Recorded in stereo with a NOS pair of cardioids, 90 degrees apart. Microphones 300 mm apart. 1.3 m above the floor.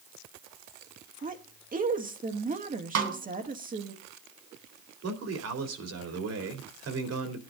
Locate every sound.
1.2 s a woman speaking: 25° right, 2.0 m
3.0 s a snare drum: 60° right, 3.5 m
5.0 s a man speaking: 55° right, 3 m